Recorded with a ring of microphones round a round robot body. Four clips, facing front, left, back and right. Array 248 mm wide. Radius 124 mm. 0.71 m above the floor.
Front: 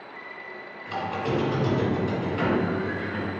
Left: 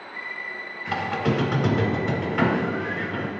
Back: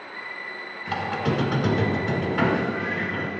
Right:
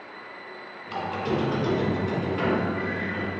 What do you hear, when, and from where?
0.9 s a squeak: 120° left, 0.9 m